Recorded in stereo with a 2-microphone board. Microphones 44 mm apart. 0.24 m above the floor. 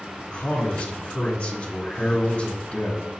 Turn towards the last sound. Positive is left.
turn(degrees=35)  # may be behind; listen again after turning